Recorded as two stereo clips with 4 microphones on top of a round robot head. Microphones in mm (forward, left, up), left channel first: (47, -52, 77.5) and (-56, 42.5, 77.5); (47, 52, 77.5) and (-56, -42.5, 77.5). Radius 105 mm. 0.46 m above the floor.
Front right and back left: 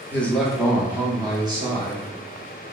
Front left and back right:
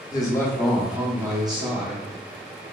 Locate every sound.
0.1 s a man speaking: 20° left, 0.8 m; by 2.0 s 175° right, 1.1 m